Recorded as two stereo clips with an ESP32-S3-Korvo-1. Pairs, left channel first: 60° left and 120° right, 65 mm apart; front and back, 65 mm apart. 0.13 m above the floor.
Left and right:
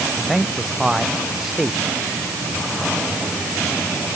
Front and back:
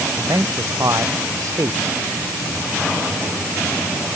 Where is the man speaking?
160° left.